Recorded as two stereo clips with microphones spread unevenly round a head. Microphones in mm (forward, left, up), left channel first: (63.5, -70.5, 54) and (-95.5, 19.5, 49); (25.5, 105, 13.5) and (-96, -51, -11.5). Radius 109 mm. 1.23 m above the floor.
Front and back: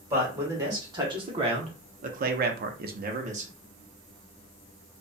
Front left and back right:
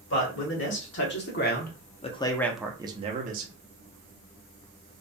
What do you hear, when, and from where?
0.1 s a man speaking: 75° left, 1.5 m; by 3.5 s 160° right, 0.7 m